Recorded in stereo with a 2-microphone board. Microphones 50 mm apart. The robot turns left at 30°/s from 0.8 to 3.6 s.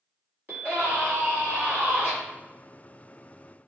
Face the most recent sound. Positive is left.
turn(degrees=-150)